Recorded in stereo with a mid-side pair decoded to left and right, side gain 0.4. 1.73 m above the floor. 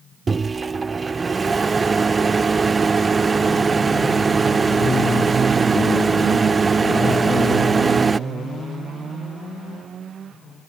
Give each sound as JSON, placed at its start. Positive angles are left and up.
{"t": 0.3, "sound": "a microwave", "azimuth_deg": -35}